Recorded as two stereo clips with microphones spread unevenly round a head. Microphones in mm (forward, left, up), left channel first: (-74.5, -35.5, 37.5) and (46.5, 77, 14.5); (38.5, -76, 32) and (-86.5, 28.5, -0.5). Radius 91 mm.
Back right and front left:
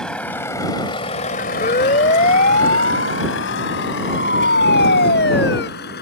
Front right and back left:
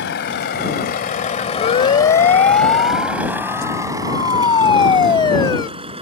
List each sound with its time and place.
0.0 s a vehicle: 50° right; by 6.0 s 165° right
1.6 s a siren: 85° right; by 5.7 s 105° right